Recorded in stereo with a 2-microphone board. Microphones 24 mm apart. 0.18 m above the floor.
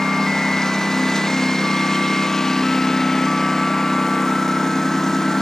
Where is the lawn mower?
25° left (ahead or behind).